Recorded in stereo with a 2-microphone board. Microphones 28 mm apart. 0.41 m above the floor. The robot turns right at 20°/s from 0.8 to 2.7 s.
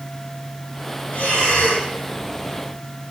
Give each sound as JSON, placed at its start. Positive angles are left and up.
{"t": 1.1, "sound": "breathing", "side_deg": 85, "distance_m": 5.5}